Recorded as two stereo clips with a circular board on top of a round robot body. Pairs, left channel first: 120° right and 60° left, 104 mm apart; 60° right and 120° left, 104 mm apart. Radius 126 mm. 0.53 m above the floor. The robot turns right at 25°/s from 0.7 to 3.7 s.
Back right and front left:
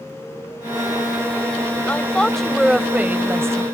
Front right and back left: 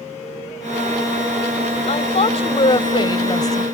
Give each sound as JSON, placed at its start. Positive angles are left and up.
{"t": 1.9, "sound": "a woman speaking", "azimuth_deg": -45}